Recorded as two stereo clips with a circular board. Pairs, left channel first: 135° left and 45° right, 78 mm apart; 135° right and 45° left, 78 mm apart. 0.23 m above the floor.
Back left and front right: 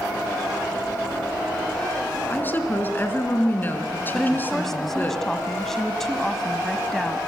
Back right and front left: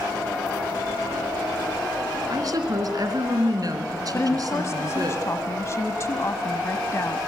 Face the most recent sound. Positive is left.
turn(degrees=-145)